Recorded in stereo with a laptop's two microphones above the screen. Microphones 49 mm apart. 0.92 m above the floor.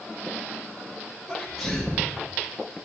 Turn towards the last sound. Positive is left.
turn(degrees=-5)  # may be behind; listen again after turning